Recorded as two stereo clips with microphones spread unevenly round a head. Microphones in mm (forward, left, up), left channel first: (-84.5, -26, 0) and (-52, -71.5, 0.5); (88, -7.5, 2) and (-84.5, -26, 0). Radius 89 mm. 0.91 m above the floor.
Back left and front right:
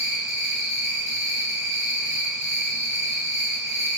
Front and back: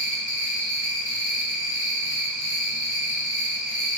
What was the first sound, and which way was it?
An insect, 55° left.